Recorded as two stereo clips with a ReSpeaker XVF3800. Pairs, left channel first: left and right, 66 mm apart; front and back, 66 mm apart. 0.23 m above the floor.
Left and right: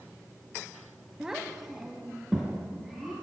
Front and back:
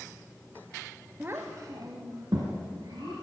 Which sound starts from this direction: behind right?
A child speaking, at 1.2 s.